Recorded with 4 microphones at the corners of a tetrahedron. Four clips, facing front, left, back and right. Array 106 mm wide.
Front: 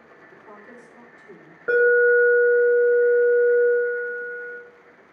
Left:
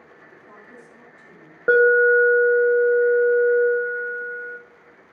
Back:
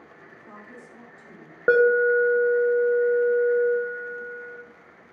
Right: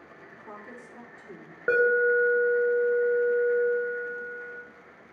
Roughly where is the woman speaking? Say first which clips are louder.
Right 3 dB, front 1 dB; ahead right.